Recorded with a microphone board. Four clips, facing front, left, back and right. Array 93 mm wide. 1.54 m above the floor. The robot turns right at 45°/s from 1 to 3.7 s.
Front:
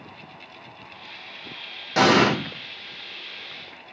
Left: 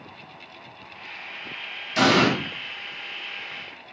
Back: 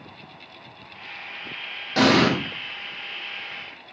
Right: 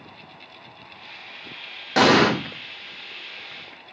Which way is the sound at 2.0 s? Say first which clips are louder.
Right 3 dB, front 1 dB; 80° right.